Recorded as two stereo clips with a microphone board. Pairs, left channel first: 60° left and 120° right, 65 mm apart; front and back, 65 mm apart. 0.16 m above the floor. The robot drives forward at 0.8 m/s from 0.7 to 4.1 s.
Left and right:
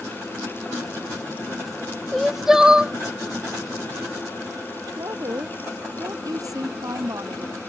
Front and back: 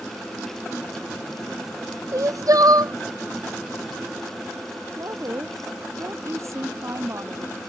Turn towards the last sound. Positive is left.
turn(degrees=-140)